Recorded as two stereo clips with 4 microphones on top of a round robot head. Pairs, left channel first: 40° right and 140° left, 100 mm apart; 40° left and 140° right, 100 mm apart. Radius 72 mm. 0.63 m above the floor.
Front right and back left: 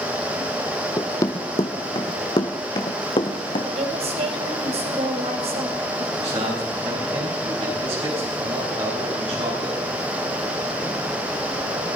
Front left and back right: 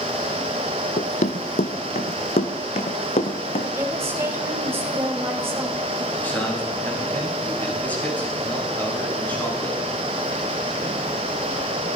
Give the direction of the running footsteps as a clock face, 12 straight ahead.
11 o'clock.